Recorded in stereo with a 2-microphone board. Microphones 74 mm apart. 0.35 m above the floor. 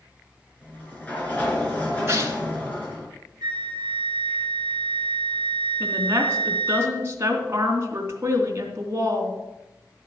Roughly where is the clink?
I don't hear a clink.